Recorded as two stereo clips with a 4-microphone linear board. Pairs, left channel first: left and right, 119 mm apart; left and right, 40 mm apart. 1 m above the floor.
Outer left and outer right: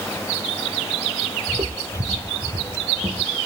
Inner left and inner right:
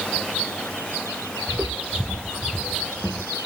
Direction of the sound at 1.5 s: 45° right (ahead or behind).